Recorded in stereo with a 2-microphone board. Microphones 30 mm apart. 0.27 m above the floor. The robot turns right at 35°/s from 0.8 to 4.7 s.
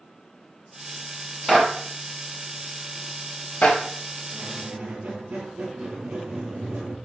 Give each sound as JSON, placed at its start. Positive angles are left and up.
{"t": 1.5, "sound": "a clap", "side_deg": 0, "distance_m": 2.0}
{"t": 4.3, "sound": "a squeak", "side_deg": -75, "distance_m": 3.0}